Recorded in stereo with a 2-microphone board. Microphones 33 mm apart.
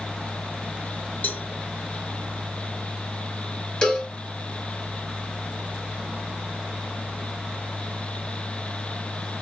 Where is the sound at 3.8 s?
30° left (ahead or behind), 1.2 m.